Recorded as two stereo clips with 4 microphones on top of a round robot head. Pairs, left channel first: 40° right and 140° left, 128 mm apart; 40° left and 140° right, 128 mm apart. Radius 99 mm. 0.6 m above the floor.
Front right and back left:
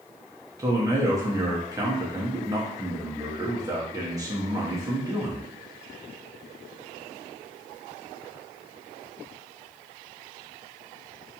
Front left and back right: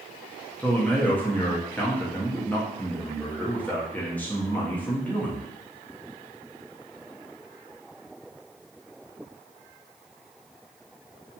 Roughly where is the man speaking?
Left.